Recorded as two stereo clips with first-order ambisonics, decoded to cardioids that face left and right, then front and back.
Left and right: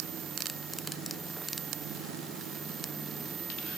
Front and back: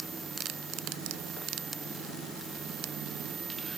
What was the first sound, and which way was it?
Only background noise.